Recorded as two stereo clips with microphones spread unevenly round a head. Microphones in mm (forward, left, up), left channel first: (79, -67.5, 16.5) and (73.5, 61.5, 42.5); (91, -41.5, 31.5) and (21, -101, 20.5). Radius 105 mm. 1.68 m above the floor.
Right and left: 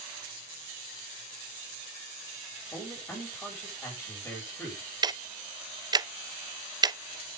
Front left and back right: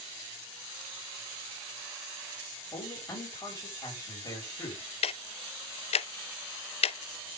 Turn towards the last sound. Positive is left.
turn(degrees=30)